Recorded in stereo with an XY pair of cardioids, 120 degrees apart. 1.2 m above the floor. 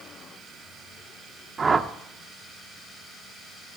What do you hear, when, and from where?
1.6 s a whoosh: 30° right, 0.7 m